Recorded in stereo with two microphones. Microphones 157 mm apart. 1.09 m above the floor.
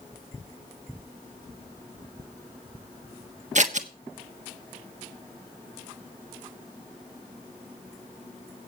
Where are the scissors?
55° right (ahead or behind), 1.2 m.